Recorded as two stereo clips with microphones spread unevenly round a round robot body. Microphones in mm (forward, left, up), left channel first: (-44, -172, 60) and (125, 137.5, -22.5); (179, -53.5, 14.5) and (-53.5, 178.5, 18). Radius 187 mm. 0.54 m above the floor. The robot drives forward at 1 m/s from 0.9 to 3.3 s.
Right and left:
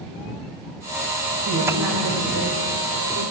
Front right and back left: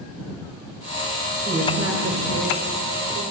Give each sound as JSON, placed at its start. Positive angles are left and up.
{"t": 1.4, "sound": "a woman speaking", "azimuth_deg": 65, "distance_m": 2.5}